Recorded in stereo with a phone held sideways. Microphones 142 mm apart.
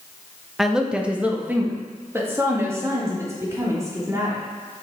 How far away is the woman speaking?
About 0.9 m.